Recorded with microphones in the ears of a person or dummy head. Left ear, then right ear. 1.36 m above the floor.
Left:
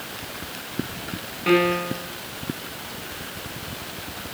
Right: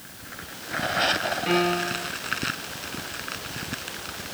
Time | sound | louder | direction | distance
1.5 | a piano | left 6 dB | 20° left (ahead or behind) | 3.5 m